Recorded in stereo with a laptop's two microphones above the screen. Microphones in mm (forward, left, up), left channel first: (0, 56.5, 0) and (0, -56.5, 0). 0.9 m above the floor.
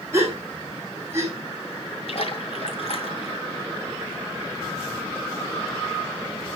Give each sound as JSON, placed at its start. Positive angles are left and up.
{"t": 0.1, "sound": "a gasp", "side_deg": -25, "distance_m": 3.0}
{"t": 2.1, "sound": "a splash", "side_deg": 60, "distance_m": 2.0}